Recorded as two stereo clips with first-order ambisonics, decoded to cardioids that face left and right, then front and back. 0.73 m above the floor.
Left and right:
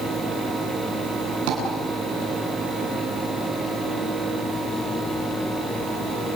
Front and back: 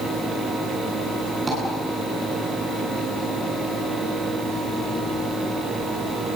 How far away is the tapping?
About 9.5 m.